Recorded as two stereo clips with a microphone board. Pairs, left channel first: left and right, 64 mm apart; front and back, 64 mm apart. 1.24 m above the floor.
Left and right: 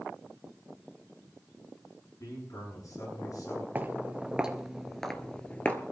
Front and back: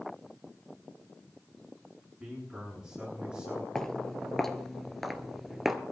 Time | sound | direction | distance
2.2 | a man speaking | 105° left | 9 m
3.8 | footsteps | 70° right | 1.4 m